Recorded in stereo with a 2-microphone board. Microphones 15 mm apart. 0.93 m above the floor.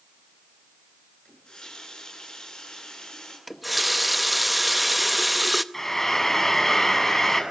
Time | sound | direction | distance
1.2 | a running tap | 65° left (ahead or behind) | 9 m
3.5 | a running tap | 5° right (ahead or behind) | 0.7 m
5.7 | frying | 25° left (ahead or behind) | 7 m